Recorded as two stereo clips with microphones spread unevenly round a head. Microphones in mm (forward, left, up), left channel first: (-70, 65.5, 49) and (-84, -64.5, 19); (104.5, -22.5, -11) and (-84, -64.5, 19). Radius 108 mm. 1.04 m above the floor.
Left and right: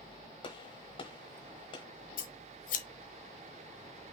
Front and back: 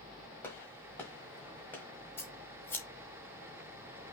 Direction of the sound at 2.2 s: 95° left.